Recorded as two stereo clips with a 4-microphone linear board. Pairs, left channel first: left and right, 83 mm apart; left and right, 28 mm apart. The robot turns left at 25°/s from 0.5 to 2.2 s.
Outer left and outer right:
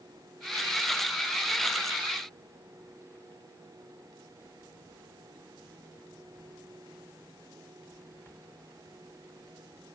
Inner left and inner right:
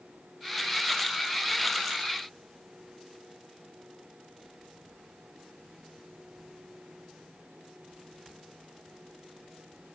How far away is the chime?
I don't hear a chime.